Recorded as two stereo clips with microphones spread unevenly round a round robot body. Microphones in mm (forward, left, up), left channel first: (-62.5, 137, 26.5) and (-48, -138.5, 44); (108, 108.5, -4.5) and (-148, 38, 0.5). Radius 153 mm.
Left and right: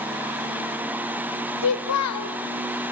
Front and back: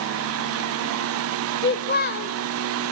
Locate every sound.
1.6 s a child speaking: 65° left, 1.8 m